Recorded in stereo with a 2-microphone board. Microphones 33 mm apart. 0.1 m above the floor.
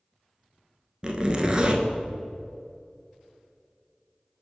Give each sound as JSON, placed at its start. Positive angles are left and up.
{"t": 1.0, "sound": "a zipper", "side_deg": -30, "distance_m": 0.6}